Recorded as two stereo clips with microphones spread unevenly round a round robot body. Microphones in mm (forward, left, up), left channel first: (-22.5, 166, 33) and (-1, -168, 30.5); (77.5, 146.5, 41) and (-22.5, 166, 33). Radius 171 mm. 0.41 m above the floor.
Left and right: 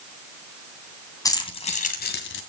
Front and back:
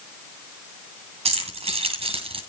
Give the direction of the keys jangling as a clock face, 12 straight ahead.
6 o'clock.